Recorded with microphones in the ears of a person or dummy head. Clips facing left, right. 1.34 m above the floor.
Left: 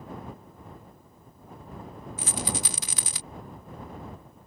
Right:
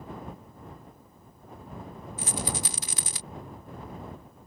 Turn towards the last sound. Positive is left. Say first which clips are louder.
# even
turn(degrees=60)  # may be behind; listen again after turning